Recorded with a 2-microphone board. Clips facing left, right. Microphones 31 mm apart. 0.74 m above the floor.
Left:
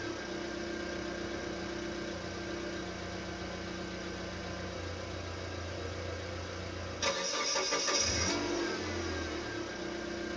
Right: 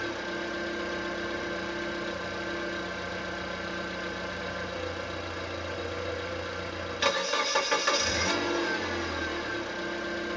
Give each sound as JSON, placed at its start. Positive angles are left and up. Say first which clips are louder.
{"t": 0.0, "sound": "an engine running", "louder": "right 6 dB", "side_deg": -70, "distance_m": 1.1}